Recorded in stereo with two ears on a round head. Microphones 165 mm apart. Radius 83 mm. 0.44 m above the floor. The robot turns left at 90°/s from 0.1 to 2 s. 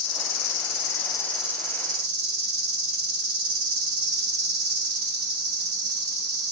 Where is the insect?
115° left, 0.9 m; by 6.5 s 55° right, 0.9 m.